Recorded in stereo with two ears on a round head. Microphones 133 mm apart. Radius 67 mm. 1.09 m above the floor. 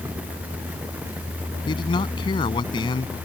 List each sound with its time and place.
1.7 s a man speaking: 30° left (ahead or behind)